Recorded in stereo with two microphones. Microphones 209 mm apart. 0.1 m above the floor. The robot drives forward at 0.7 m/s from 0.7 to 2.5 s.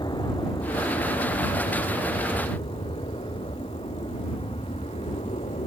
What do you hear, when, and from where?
0.0 s an aircraft: 20° left (ahead or behind); by 5.7 s 30° left (ahead or behind)